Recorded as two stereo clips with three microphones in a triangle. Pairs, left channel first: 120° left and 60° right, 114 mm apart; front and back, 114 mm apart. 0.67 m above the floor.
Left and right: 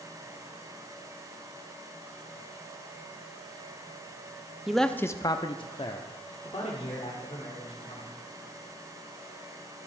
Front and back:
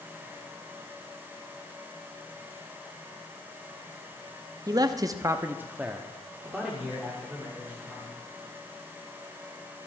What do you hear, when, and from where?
4.7 s a man speaking: 145° right, 0.6 m; by 8.1 s 85° left, 2.5 m